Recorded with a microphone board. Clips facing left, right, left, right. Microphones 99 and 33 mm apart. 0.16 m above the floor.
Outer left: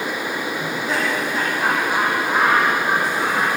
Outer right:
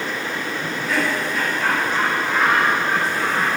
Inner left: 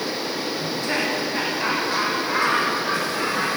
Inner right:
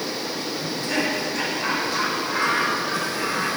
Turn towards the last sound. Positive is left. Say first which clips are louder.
# outer right 1 dB, even
turn(degrees=30)  # may be behind; listen again after turning